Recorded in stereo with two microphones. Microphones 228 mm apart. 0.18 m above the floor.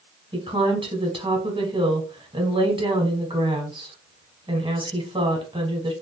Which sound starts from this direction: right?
A woman speaking, at 0.3 s.